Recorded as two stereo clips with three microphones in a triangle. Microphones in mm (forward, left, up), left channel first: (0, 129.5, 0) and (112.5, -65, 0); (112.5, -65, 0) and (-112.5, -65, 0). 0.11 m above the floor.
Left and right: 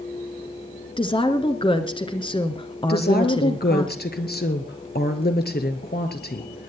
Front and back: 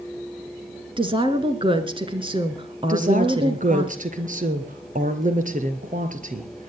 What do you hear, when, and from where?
1.0 s a woman speaking: 150° left, 1.5 m
2.9 s a woman speaking: 140° left, 1.7 m